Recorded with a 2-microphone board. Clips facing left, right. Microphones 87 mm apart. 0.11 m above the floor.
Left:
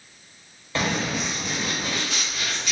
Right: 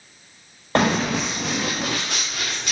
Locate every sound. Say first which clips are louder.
0.8 s running footsteps: right 6 dB; 55° right (ahead or behind), 0.5 m; by 2.7 s 50° right (ahead or behind), 1.2 m